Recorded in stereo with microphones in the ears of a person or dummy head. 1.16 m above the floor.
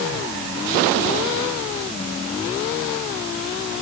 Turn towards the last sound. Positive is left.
No sound to turn to.